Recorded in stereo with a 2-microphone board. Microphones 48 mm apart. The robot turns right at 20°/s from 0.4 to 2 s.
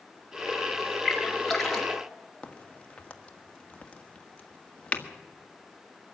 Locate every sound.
1.1 s a splash: 5° right (ahead or behind), 2.5 m; by 2.0 s 10° left (ahead or behind), 2.5 m
2.4 s a crack: 25° left (ahead or behind), 1.4 m